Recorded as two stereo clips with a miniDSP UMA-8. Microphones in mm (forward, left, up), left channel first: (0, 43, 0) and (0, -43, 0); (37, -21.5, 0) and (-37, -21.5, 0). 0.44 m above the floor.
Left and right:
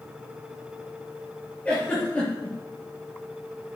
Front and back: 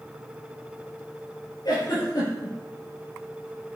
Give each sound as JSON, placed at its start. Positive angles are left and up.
{"t": 1.6, "sound": "a giggle", "azimuth_deg": 15, "distance_m": 5.0}